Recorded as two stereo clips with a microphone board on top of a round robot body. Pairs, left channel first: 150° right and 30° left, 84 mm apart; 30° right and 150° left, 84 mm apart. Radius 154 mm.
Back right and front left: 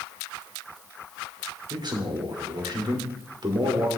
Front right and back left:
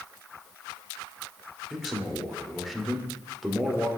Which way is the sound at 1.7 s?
60° left.